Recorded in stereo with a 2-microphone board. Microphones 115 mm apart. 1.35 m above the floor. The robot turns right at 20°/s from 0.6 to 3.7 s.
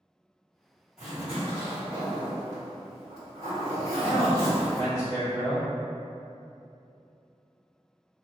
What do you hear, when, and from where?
1.0 s a zipper: 175° right, 1.6 m; by 4.9 s 120° right, 1.6 m
4.0 s a man speaking: 60° right (ahead or behind), 1.7 m